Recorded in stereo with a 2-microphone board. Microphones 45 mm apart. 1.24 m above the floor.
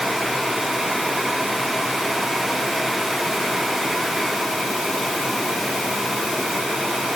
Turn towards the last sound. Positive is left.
No sound to turn to.